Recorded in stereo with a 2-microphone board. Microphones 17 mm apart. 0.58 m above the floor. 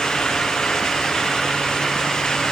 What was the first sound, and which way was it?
Only background noise.